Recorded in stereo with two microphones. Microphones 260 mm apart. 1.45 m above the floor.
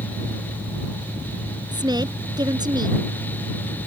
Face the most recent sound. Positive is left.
turn(degrees=-15)  # may be behind; listen again after turning